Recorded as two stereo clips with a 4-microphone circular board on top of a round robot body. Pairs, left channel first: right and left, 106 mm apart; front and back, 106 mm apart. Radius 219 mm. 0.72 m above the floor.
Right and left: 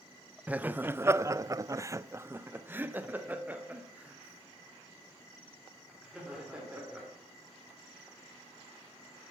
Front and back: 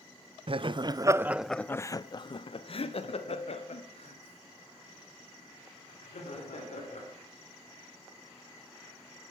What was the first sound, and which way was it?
Laughter, 165° left.